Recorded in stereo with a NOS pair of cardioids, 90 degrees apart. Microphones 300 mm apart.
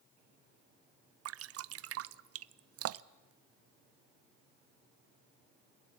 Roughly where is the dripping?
Ahead right.